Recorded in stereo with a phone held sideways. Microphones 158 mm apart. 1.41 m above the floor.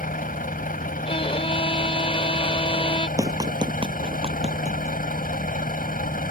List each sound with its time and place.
0.0 s a vehicle: 65° left (ahead or behind)
1.1 s a violin: 35° left (ahead or behind)
3.2 s running footsteps: 20° right (ahead or behind); by 5.0 s 50° right (ahead or behind)